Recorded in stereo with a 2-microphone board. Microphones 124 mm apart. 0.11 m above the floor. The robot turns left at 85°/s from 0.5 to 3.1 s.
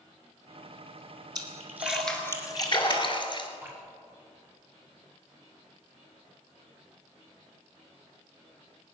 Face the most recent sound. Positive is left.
turn(degrees=-20)  # may be behind; listen again after turning